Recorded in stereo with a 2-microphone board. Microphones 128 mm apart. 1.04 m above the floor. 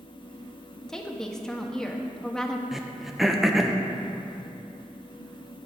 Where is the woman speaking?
5° left (ahead or behind), 1.2 m.